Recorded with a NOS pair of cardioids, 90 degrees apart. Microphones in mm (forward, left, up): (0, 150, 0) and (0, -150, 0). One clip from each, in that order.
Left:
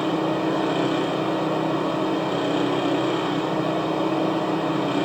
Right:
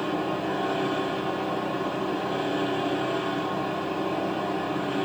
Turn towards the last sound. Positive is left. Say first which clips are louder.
# left 5 dB
turn(degrees=60)